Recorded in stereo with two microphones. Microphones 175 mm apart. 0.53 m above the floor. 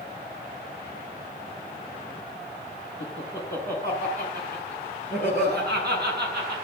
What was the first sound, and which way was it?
Laughter, 60° right (ahead or behind).